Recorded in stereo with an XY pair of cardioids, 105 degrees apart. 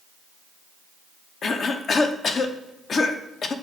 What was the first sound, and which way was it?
A cough, 50° left.